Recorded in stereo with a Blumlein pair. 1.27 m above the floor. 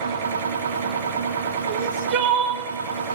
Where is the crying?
45° right, 0.9 m.